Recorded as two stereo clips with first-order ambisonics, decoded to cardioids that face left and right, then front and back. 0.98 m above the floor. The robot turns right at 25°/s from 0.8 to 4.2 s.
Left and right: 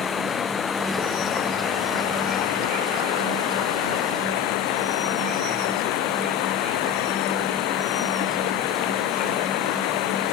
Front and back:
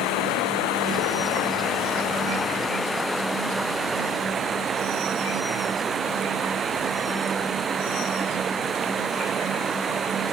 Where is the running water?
25° left; by 10.3 s 110° left.